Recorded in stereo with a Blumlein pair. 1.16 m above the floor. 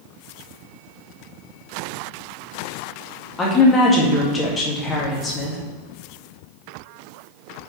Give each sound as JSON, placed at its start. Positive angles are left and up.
{"t": 3.4, "sound": "a woman speaking", "azimuth_deg": 20, "distance_m": 2.5}